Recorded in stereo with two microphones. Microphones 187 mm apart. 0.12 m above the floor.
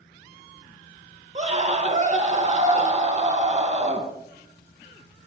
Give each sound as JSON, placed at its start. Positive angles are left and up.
{"t": 1.4, "sound": "a scream", "side_deg": -40, "distance_m": 3.0}